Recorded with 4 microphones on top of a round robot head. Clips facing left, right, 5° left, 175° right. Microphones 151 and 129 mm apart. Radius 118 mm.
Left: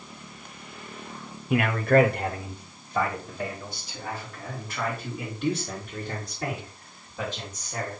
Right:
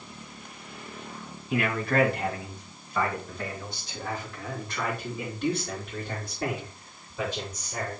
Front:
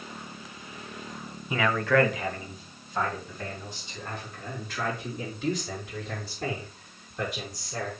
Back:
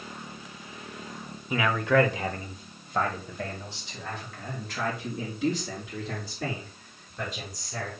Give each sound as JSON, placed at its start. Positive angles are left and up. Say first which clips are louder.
{"t": 1.5, "sound": "a man speaking", "louder": "left 6 dB, even", "azimuth_deg": 100, "distance_m": 1.5}